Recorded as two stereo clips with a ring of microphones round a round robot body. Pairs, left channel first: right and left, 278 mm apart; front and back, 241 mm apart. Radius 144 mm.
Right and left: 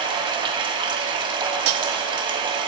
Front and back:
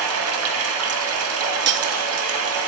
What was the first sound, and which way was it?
Running water, 165° left.